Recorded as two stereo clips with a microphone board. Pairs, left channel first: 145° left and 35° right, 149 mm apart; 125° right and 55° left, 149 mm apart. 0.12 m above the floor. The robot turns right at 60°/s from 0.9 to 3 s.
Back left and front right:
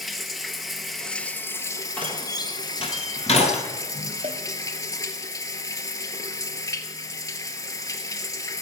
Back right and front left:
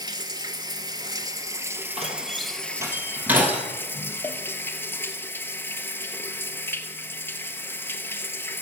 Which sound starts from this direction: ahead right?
A cowbell, at 4.2 s.